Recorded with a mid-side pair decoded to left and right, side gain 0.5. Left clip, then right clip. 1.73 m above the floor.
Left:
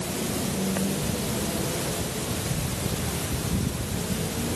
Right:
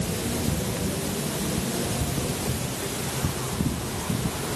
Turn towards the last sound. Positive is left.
No sound to turn to.